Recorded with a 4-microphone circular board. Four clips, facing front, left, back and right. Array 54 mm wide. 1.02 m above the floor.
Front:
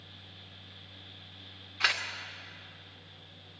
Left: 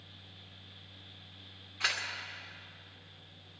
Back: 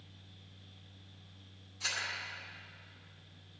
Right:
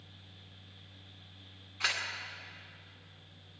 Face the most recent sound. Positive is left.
turn(degrees=0)